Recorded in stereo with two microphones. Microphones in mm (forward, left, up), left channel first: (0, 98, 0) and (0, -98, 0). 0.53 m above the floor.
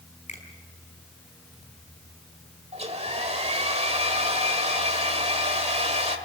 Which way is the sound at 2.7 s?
30° right (ahead or behind).